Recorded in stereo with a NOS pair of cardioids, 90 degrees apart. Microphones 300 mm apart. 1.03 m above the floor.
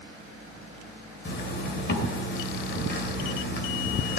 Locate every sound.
1.2 s a zipper: 35° left, 2.5 m